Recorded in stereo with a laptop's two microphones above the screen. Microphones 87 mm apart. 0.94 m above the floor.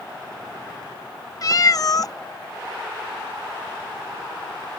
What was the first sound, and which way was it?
A cat meowing, 45° left (ahead or behind).